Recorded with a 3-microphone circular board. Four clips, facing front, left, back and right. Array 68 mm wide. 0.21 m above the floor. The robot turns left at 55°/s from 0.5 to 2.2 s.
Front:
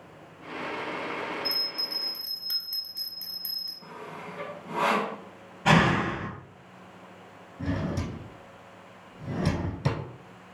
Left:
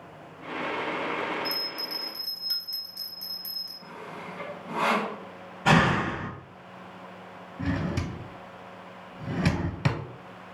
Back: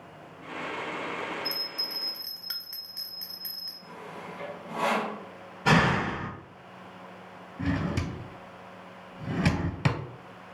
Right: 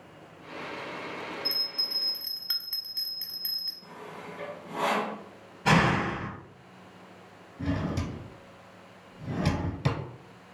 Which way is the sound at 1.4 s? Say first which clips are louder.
Left 5 dB, front 1 dB; 70° right.